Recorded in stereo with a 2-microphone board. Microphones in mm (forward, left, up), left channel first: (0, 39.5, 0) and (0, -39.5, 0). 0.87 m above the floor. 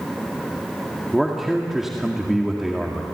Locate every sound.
1.1 s a man speaking: 5° right (ahead or behind), 2.0 m